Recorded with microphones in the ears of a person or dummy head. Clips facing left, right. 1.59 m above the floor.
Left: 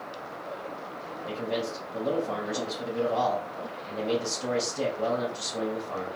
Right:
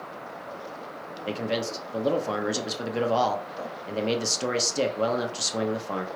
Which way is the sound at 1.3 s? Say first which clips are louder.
Right 2 dB; 80° right.